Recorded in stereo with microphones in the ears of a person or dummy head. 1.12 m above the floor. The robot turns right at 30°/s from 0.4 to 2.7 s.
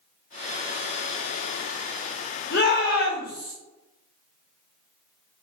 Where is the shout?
50° left (ahead or behind), 1.0 m; by 3.5 s 45° left (ahead or behind), 1.0 m.